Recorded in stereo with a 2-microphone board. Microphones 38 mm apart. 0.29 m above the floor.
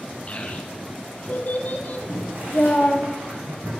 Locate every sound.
0.3 s a child speaking: 35° left (ahead or behind), 2.5 m; by 3.0 s 30° left (ahead or behind), 1.0 m
2.0 s boiling: 90° right, 3.5 m